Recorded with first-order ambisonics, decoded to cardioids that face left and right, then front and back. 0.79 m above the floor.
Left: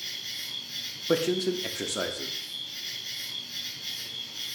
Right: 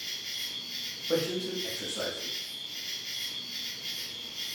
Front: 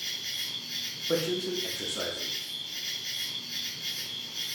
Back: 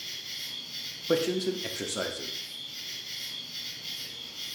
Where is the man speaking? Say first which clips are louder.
Left 4 dB, back 3 dB; 120° left, 0.5 m.